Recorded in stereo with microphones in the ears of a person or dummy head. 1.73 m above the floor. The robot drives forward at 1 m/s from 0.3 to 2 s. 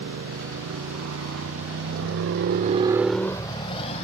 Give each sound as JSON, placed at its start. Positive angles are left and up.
{"t": 0.0, "sound": "a motorcycle", "side_deg": -75}